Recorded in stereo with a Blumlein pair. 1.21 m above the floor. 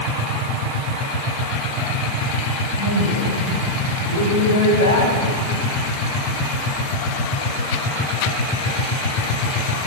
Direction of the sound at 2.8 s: 65° left.